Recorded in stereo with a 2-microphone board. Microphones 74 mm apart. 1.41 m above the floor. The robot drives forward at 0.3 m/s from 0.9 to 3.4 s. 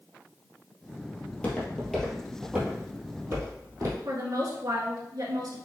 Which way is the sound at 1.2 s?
25° left (ahead or behind).